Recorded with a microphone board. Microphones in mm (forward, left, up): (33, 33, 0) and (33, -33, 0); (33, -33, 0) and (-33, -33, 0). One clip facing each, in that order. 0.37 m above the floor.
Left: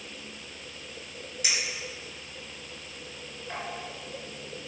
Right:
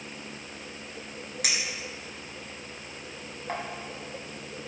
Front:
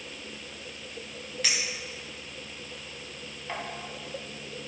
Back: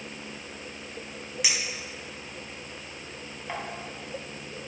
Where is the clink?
105° right, 2.5 m.